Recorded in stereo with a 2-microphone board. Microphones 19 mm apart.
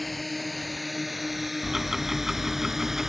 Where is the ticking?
20° right (ahead or behind).